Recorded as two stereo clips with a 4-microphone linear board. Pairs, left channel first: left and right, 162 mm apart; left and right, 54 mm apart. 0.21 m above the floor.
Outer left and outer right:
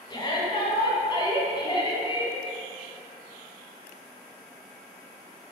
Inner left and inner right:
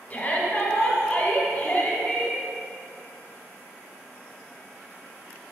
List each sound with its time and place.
0.1 s a shout: 30° left (ahead or behind), 1.2 m